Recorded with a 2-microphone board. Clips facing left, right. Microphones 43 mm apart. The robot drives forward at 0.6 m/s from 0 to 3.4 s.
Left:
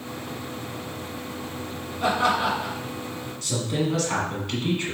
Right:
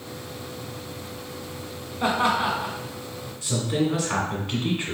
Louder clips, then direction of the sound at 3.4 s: Right 2 dB; 10° right (ahead or behind).